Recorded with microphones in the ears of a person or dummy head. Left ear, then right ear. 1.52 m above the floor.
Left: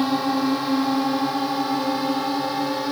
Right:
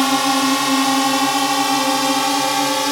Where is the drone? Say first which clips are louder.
Right 6 dB; 60° right (ahead or behind); by 2.9 s 65° right (ahead or behind).